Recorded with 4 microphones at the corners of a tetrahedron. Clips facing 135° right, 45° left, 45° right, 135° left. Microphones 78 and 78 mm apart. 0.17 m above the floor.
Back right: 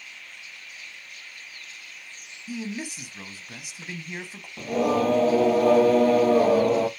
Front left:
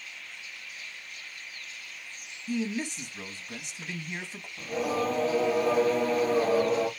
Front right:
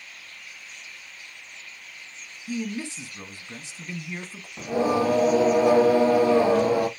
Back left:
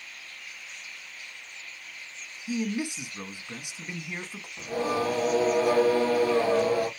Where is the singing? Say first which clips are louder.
Back right 6 dB, front right 5 dB; 115° right, 1.1 m.